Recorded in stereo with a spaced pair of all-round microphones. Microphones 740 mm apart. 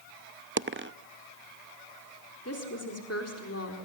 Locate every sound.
0.6 s a dropped coin: 20° right (ahead or behind), 0.5 m
2.5 s a woman speaking: 20° left (ahead or behind), 4 m